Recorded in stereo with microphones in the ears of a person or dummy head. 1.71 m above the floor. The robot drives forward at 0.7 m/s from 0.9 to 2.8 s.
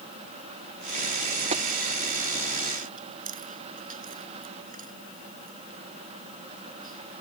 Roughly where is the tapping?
Right.